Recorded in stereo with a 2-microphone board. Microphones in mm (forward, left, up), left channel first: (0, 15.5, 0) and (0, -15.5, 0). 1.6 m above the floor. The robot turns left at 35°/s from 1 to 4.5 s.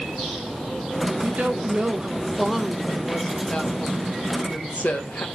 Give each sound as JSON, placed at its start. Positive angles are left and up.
{"t": 1.2, "sound": "a woman speaking", "azimuth_deg": -130, "distance_m": 2.5}